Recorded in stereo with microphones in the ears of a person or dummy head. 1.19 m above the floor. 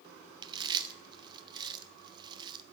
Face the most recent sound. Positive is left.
turn(degrees=-25)  # may be behind; listen again after turning